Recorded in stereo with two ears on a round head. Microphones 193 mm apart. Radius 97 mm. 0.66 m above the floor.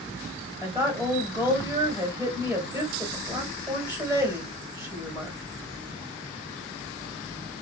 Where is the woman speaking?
10° right (ahead or behind), 1.5 m.